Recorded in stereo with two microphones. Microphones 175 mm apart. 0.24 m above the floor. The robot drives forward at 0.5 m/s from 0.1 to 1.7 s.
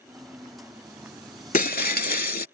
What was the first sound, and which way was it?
Breaking glass, 55° left (ahead or behind).